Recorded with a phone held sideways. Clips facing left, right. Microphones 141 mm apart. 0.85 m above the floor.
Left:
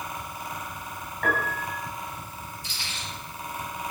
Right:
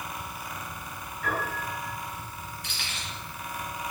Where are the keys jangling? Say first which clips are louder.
Even; 65° right (ahead or behind), 9 m.